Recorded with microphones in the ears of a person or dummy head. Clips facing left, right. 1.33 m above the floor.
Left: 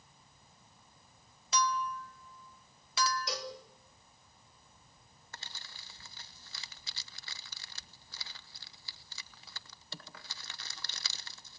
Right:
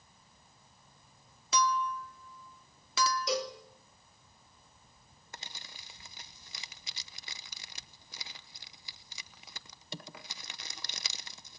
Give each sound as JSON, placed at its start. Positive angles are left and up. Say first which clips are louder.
{"t": 1.5, "sound": "a clink", "louder": "right 3 dB", "side_deg": -75, "distance_m": 1.8}
{"t": 3.3, "sound": "a cowbell", "louder": "right 7 dB", "side_deg": -75, "distance_m": 2.5}
{"t": 5.3, "sound": "crumpling", "louder": "right 2 dB", "side_deg": -15, "distance_m": 0.8}